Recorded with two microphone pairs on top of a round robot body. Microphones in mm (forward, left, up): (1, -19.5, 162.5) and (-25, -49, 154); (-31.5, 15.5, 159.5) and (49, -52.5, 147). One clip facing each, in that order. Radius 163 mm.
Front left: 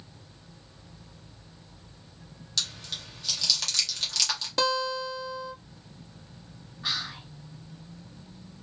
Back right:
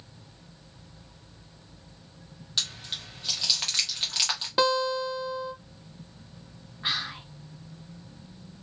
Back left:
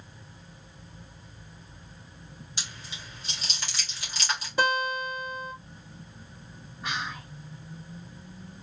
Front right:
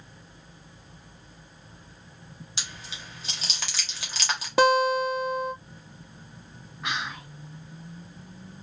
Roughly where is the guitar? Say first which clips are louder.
Back right 3 dB, front right 8 dB; ahead right.